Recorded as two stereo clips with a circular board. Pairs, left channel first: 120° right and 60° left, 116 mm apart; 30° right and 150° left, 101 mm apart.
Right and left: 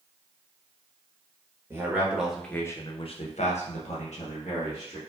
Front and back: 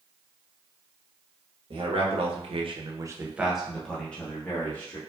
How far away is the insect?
I don't hear an insect.